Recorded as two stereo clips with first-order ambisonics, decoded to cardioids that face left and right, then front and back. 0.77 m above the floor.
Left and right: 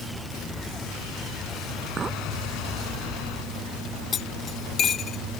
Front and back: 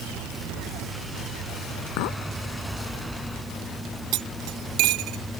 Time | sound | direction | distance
2.0 | a clink | 20° right | ?
4.1 | cutlery clinking | 155° left | ?